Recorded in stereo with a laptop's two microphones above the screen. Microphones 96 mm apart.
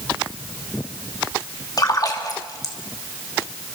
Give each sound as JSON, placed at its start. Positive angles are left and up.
{"t": 1.8, "sound": "a splash", "side_deg": 40, "distance_m": 2.5}